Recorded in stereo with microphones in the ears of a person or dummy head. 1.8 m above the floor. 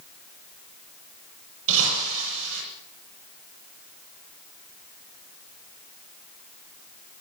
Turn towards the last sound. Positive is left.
turn(degrees=-75)  # may be behind; listen again after turning